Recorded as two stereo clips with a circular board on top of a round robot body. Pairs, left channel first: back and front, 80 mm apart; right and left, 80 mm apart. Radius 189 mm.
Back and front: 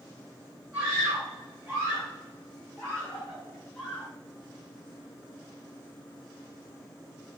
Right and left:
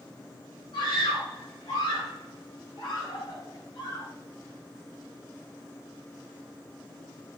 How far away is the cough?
No cough in this recording.